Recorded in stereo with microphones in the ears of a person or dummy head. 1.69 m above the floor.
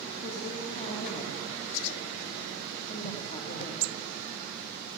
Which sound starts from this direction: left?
A woman speaking, at 0.2 s.